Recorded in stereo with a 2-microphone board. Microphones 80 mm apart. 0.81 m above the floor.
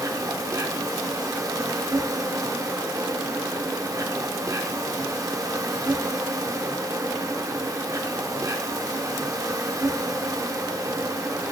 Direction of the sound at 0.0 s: 45° right (ahead or behind).